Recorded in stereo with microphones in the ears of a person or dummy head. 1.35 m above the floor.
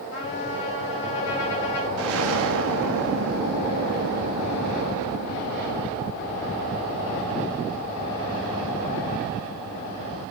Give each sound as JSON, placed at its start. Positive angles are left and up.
{"t": 0.1, "sound": "a trumpet", "side_deg": 60, "distance_m": 4.5}
{"t": 2.0, "sound": "an explosion", "side_deg": -55, "distance_m": 1.2}